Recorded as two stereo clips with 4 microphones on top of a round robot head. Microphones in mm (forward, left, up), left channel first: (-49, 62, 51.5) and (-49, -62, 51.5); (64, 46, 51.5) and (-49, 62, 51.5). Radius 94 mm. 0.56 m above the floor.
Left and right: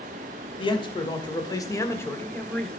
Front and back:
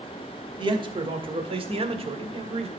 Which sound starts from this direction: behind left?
A man speaking, at 0.6 s.